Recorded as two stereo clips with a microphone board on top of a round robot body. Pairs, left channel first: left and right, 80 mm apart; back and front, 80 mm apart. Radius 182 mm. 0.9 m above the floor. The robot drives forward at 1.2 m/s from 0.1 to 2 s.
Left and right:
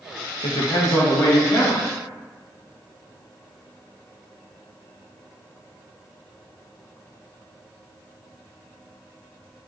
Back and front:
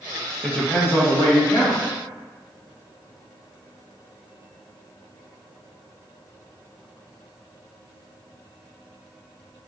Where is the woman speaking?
100° left, 1.4 m; by 1.8 s 145° left, 2.5 m.